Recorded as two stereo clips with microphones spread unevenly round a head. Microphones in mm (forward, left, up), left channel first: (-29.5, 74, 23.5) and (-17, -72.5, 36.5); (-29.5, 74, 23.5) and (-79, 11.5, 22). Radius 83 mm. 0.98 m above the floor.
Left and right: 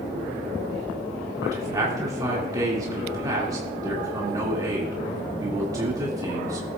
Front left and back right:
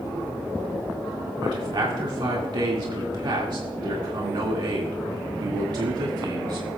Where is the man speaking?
150° right, 2 m.